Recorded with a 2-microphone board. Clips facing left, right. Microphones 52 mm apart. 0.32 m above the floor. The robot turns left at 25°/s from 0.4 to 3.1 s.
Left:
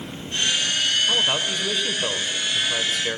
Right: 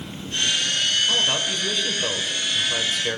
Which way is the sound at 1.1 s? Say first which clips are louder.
Even; 15° left (ahead or behind).